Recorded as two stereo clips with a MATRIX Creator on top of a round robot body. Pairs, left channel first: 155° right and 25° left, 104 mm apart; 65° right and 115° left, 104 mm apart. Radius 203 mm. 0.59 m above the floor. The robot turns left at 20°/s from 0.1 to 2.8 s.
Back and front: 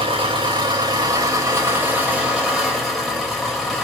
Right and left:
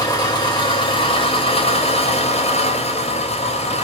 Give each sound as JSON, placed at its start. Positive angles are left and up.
{"t": 0.0, "sound": "an engine running", "azimuth_deg": -15, "distance_m": 3.0}